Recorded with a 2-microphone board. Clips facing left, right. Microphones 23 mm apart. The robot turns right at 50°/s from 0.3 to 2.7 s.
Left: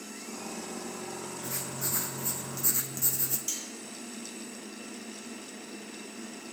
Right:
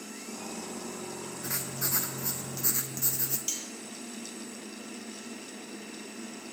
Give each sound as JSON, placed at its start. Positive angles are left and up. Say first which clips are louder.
{"t": 1.4, "sound": "writing", "louder": "right 3 dB", "azimuth_deg": -90, "distance_m": 1.1}
{"t": 3.5, "sound": "cutlery clinking", "louder": "right 2 dB", "side_deg": -15, "distance_m": 1.8}